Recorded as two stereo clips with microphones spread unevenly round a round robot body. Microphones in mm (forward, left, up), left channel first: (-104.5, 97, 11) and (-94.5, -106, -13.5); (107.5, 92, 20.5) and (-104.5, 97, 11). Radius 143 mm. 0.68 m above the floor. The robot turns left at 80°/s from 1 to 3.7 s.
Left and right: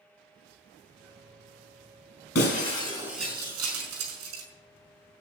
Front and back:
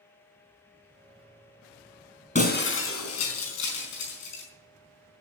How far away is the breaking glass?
About 4.5 m.